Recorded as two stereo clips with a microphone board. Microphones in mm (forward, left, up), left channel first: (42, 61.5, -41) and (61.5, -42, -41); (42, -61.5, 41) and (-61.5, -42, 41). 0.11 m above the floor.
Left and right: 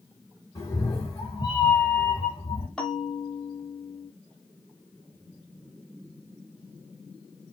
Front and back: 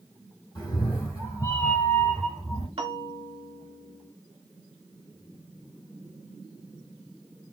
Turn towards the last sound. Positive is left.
turn(degrees=180)